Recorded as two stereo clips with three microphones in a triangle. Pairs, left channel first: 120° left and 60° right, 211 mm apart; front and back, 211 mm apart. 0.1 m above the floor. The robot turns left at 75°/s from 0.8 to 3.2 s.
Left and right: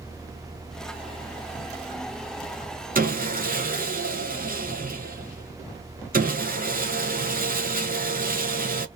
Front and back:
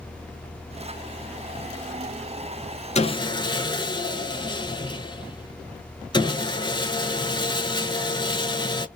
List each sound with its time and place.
3.0 s sawing: 40° right, 0.5 m; by 8.9 s 60° right, 0.5 m